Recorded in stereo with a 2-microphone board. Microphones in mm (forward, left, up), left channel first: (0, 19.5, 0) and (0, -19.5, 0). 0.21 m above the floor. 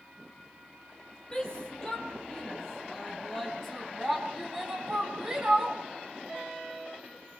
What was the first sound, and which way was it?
A shout, 20° left (ahead or behind).